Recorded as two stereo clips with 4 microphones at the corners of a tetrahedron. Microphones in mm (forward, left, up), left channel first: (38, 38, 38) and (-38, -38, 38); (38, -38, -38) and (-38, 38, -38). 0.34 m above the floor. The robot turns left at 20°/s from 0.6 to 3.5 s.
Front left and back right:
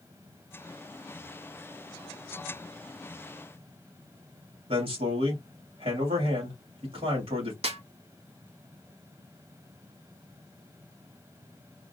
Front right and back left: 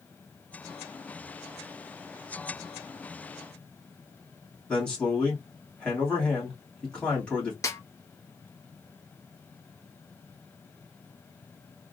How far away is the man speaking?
About 2.5 m.